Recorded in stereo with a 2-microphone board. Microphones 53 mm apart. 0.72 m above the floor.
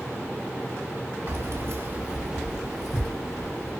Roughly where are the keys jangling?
Right.